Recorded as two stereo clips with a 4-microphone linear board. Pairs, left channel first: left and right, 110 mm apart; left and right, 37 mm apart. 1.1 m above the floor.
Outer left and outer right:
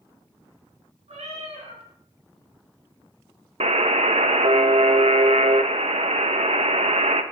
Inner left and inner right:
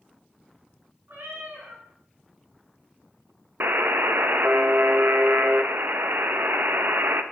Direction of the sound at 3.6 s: 70° right (ahead or behind).